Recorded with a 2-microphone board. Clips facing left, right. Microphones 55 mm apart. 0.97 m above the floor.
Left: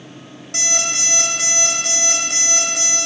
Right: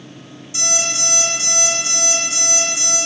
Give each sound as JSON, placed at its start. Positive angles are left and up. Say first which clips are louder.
{"t": 0.5, "sound": "an alarm clock", "louder": "even", "side_deg": 65, "distance_m": 3.0}